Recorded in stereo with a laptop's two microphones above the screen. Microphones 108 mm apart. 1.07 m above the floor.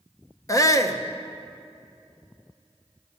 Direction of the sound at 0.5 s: 30° left (ahead or behind).